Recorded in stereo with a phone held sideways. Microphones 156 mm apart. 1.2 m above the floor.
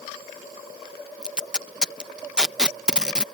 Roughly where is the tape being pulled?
Centre.